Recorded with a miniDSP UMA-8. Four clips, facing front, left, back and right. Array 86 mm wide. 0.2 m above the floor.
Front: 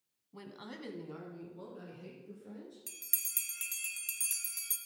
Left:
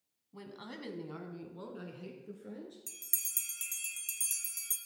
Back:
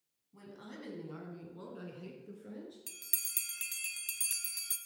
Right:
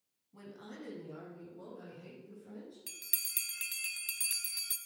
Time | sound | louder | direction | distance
0.3 | a woman speaking | left 2 dB, front 2 dB | 30° left | 1.4 m
2.9 | a bell | right 3 dB, back 1 dB | 105° right | 0.7 m